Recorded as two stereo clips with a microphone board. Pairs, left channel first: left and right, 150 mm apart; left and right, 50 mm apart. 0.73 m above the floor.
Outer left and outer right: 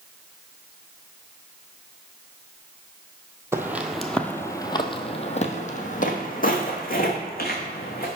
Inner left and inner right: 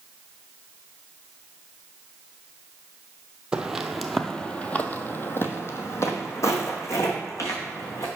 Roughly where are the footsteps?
Centre.